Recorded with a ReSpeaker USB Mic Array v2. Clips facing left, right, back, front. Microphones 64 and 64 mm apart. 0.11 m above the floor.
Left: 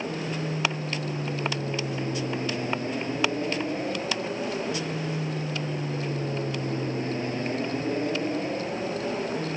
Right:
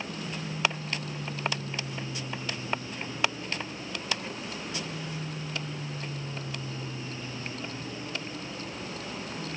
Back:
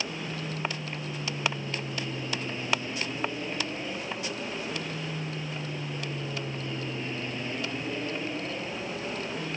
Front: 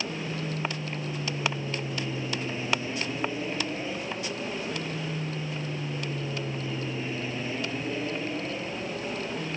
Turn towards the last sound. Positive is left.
turn(degrees=85)